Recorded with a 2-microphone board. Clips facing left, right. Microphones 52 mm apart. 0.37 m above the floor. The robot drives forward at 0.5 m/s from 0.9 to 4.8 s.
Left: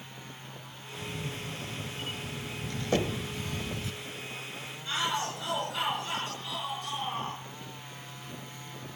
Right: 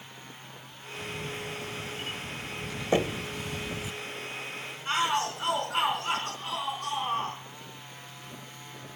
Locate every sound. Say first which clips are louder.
1.0 s a camera shutter: right 2 dB; 5° right (ahead or behind), 2.5 m; by 3.9 s 15° right (ahead or behind), 0.9 m
2.9 s knocking: right 3 dB; 20° right (ahead or behind), 1.1 m
4.8 s a shout: right 4 dB; 45° right (ahead or behind), 4 m